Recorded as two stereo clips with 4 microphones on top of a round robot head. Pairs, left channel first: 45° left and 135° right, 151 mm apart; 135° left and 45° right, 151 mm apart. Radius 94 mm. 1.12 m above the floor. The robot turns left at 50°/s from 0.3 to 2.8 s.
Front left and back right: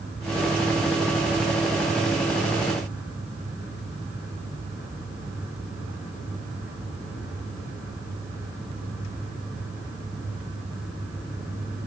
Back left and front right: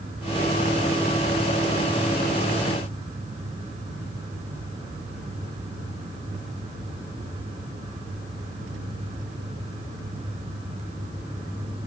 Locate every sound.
Only background noise.